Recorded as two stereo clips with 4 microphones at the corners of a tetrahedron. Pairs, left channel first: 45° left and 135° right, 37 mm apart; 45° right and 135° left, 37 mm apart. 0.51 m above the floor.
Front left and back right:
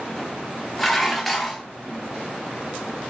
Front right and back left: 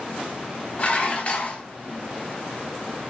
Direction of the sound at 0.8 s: 35° right.